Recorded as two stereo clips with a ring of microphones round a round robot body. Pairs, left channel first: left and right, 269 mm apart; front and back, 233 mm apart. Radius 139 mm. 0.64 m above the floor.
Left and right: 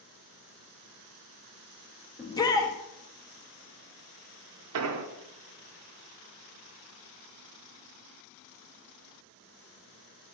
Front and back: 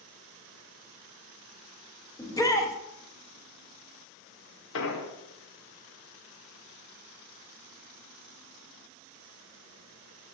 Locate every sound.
2.2 s a shout: 45° left, 0.9 m
4.7 s an explosion: 50° right, 0.7 m